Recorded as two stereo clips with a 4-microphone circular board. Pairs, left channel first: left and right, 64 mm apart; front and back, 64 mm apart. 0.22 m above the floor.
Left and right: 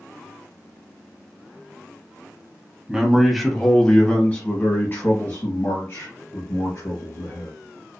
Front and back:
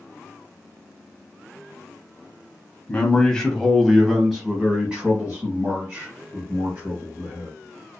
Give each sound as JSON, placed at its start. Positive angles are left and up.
{"t": 2.9, "sound": "a man speaking", "azimuth_deg": -30, "distance_m": 1.0}